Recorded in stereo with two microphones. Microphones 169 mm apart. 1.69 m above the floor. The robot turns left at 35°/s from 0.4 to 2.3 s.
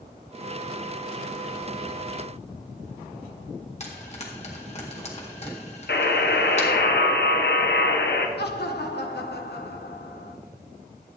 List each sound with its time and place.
3.8 s frying: 40° left (ahead or behind), 1.8 m
5.9 s a buzzer: 75° left (ahead or behind), 1.1 m
8.4 s laughter: 75° left (ahead or behind), 1.0 m